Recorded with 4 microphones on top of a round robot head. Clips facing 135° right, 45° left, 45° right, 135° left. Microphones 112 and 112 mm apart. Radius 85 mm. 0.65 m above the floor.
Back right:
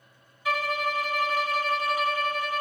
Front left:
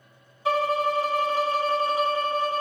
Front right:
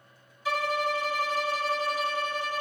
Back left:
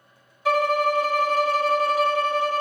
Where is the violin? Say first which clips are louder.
Front left 5 dB, back left 8 dB; 105° left, 0.8 m.